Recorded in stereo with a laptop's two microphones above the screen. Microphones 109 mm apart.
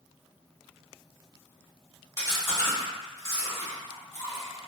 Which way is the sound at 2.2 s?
35° left (ahead or behind).